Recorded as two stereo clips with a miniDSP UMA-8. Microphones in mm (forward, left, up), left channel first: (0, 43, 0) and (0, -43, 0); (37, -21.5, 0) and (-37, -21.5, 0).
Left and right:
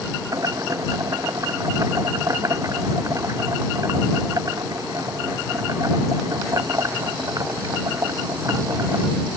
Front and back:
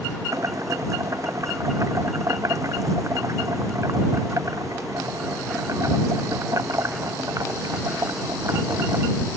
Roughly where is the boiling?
Behind right.